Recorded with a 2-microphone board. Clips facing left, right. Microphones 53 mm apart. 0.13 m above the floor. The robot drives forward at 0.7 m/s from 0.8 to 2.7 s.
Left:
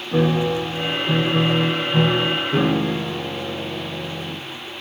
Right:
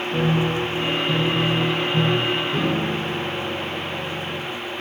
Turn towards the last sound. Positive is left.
turn(degrees=50)  # may be behind; listen again after turning